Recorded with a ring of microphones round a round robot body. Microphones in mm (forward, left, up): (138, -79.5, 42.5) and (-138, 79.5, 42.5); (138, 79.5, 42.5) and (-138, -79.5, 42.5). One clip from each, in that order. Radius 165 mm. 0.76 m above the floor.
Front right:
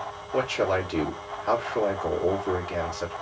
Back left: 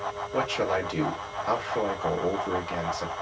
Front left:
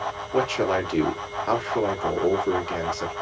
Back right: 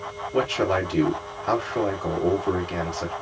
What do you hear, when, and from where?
0.3 s a man speaking: 60° left, 2.0 m